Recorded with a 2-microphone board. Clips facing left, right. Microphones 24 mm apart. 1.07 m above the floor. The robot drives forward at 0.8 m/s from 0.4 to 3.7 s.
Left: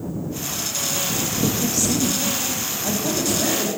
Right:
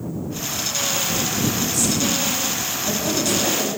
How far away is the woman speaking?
About 0.6 m.